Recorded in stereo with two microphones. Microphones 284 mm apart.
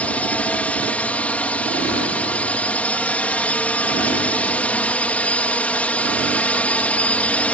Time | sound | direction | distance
0.0 | a drone | 5° left (ahead or behind) | ?